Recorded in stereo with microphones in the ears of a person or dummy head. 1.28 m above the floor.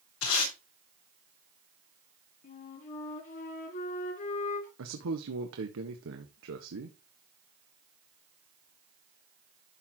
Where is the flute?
45° left (ahead or behind), 2.5 m.